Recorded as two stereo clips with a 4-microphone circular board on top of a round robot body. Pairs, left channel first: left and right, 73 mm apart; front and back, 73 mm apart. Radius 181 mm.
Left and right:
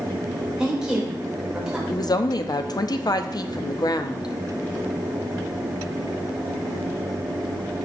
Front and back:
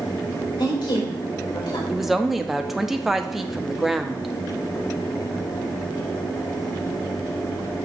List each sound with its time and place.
0.6 s a woman speaking: 10° right, 3.5 m
1.9 s a woman speaking: 95° left, 1.0 m